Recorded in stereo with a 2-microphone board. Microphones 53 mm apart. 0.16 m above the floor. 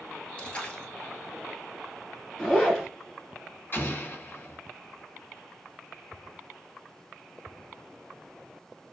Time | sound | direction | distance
0.4 | a splash | 20° left (ahead or behind) | 1.1 m
2.4 | a zipper | 15° left (ahead or behind) | 1.6 m
3.7 | an explosion | 40° left (ahead or behind) | 1.9 m